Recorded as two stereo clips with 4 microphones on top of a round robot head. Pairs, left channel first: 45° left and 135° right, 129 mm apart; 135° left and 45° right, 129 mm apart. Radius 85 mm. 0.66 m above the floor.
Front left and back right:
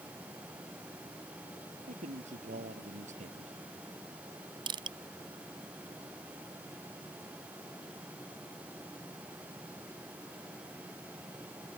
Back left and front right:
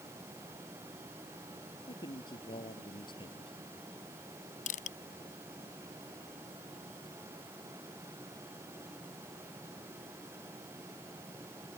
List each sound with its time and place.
1.9 s a man speaking: 170° right
4.7 s crushing: 170° left